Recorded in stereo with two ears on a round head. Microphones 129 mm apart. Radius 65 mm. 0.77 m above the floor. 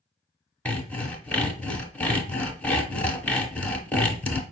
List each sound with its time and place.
0.7 s sawing: 10° left (ahead or behind), 0.7 m